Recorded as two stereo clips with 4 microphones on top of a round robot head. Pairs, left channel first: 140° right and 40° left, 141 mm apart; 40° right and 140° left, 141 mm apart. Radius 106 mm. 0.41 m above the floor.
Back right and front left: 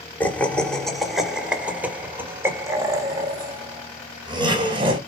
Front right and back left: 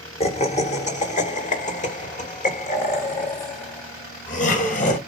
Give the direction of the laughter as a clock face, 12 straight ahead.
2 o'clock.